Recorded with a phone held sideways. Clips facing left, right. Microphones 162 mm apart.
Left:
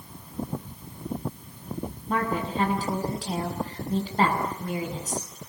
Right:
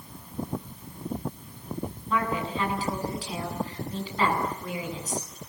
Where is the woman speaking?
45° left (ahead or behind), 8 m.